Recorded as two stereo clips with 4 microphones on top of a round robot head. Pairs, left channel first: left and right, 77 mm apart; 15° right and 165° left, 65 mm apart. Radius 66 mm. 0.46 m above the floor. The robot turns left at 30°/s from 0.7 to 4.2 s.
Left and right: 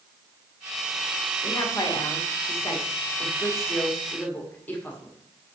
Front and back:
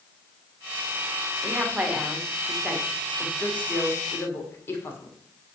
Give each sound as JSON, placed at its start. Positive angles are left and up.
{"t": 1.4, "sound": "a woman speaking", "azimuth_deg": 110, "distance_m": 1.5}